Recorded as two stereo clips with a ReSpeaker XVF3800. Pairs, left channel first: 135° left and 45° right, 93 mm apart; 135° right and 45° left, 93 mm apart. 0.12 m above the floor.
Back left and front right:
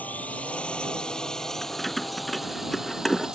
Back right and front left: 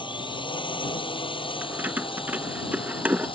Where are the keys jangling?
55° left.